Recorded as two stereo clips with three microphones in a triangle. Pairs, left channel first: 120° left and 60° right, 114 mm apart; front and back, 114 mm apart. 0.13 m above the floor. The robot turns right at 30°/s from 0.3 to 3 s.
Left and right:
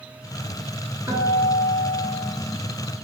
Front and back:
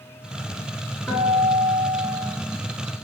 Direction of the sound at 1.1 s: 35° right.